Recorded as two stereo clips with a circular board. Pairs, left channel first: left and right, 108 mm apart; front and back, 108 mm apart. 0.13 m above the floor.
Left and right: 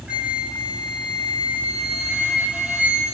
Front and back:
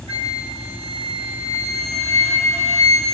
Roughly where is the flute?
Behind.